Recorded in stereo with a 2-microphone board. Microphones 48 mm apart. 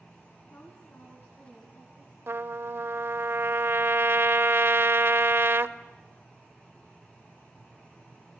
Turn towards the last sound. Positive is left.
turn(degrees=-55)  # may be behind; listen again after turning